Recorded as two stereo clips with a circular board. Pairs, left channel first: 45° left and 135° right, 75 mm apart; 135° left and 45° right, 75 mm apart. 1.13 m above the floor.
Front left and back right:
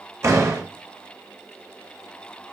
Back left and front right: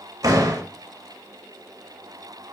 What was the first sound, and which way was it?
A door slam, 85° right.